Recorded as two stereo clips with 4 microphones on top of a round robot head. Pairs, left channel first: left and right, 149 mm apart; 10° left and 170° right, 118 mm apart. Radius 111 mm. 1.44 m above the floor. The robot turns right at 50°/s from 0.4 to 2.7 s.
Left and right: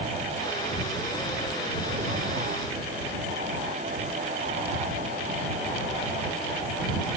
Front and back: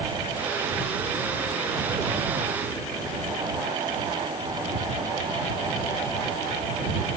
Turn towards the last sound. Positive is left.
No sound to turn to.